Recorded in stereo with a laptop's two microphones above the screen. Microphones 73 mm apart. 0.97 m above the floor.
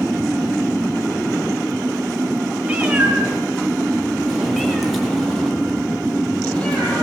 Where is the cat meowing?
20° right (ahead or behind), 7 m; by 7.0 s 15° left (ahead or behind), 9 m.